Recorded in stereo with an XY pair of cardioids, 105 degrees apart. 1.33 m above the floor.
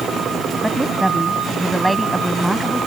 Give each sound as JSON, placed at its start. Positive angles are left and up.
{"t": 0.6, "sound": "a woman speaking", "azimuth_deg": -5}